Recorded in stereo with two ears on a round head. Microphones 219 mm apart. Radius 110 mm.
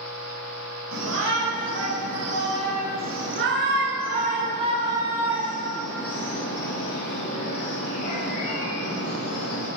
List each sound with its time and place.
0.9 s a shout: 80° right, 5.5 m; by 9.7 s 45° left (ahead or behind), 6.5 m